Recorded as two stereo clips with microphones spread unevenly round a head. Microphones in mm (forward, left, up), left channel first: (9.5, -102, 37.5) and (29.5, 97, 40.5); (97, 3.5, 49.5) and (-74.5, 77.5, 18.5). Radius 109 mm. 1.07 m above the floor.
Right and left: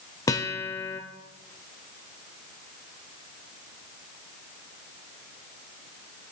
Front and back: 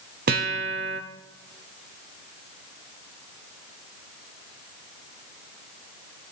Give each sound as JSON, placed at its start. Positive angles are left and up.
{"t": 0.3, "sound": "a guitar", "azimuth_deg": -165, "distance_m": 0.9}